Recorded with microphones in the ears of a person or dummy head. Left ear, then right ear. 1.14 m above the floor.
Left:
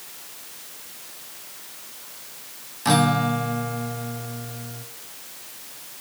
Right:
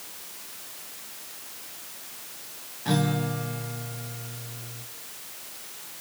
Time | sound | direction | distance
2.9 | a guitar | 50° left (ahead or behind) | 1.4 m